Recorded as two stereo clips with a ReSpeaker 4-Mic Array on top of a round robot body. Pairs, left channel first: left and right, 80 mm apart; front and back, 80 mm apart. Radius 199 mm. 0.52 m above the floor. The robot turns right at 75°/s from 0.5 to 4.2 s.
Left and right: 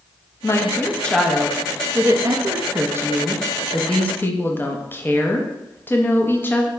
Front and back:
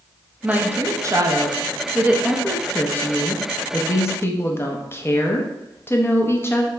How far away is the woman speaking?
About 0.8 m.